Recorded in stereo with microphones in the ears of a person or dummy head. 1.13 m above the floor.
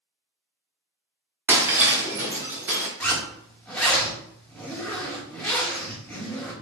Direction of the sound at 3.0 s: 5° left (ahead or behind).